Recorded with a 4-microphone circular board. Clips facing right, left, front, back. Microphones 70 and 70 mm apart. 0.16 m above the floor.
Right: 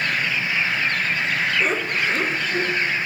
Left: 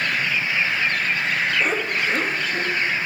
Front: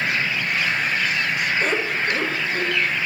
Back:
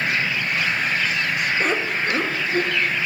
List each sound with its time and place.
1.6 s laughter: 175° right, 2.5 m